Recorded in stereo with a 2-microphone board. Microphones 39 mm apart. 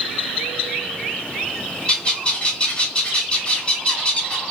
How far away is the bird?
About 1.0 m.